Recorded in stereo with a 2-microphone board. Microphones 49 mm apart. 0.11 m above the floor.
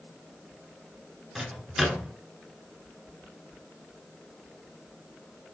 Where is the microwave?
5° right (ahead or behind), 1.1 m.